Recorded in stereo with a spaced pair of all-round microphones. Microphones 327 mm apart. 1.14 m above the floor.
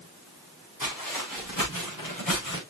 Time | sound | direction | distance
0.8 | footsteps | 80° left | 7 m